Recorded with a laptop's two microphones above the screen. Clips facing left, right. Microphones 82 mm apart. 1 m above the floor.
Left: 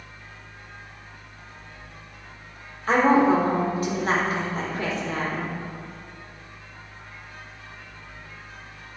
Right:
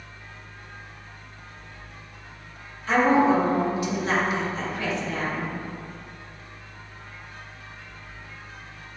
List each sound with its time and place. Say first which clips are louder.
0.0 s a fan: even; 15° left (ahead or behind), 0.8 m
2.9 s a woman speaking: left 1 dB; 40° left (ahead or behind), 1.4 m